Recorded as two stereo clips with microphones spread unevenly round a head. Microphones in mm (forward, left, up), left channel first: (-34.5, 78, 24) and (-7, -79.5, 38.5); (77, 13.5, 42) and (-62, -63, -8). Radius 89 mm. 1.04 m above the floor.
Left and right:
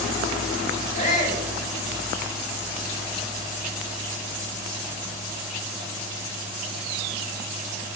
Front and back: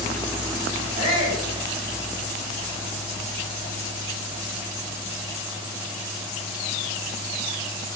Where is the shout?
140° left, 5 m.